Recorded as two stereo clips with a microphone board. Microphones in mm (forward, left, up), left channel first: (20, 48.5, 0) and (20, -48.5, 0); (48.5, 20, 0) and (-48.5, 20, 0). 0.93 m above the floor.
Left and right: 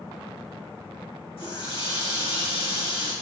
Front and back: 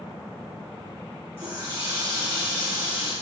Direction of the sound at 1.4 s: 115° left.